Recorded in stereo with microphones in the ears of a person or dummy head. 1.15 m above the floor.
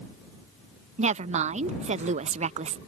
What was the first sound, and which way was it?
A woman speaking, 40° right (ahead or behind).